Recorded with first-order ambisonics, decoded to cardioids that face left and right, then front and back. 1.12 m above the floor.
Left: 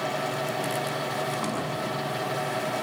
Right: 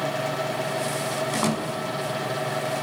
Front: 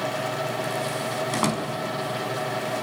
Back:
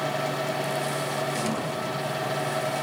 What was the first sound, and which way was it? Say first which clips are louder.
A door slam: right 4 dB, front 3 dB; 25° right.